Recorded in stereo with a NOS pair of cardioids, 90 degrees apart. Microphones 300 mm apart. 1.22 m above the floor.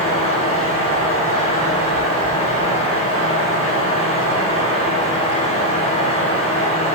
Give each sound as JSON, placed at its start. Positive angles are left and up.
{"t": 0.0, "sound": "a fan", "azimuth_deg": 20, "distance_m": 4.0}